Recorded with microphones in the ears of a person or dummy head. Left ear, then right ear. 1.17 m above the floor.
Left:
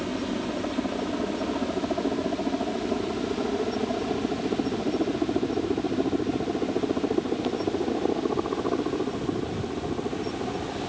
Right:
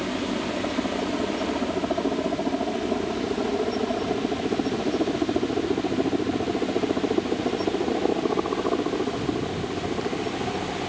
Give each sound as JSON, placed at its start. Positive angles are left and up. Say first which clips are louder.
{"t": 0.0, "sound": "a helicopter", "louder": "right 2 dB", "side_deg": -10}